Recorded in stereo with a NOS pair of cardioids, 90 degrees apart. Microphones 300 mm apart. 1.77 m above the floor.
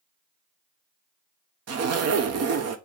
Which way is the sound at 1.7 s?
60° right.